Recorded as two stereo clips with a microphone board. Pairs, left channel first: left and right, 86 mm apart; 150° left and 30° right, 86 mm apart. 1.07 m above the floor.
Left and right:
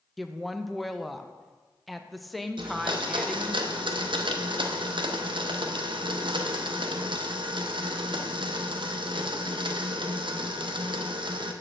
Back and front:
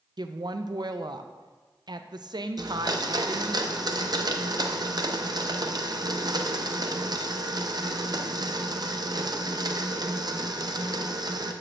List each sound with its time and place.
0.2 s a woman speaking: straight ahead, 0.5 m
2.6 s a blender: 70° right, 0.6 m